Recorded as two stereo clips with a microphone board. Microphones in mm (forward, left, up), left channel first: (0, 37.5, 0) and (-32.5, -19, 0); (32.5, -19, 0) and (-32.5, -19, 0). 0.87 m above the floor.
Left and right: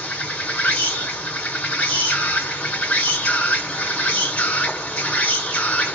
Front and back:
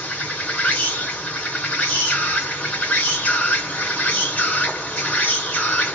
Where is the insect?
20° left, 1.6 m.